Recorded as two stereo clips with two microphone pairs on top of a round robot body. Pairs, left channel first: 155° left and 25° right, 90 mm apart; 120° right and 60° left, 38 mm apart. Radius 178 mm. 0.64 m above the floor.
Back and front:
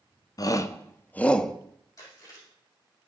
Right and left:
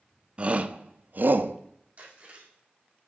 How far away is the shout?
About 1.3 m.